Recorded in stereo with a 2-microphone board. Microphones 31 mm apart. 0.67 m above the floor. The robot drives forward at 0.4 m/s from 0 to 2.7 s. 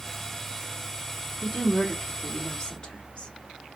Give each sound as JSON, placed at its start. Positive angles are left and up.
{"t": 1.4, "sound": "a woman speaking", "side_deg": 35, "distance_m": 1.3}